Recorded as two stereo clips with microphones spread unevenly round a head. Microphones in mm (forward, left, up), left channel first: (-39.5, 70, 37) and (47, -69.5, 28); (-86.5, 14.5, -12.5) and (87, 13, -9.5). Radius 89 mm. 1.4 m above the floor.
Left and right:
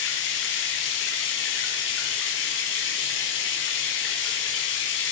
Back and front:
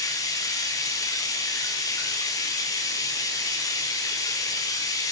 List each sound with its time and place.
0.0 s running water: 110° left, 3.5 m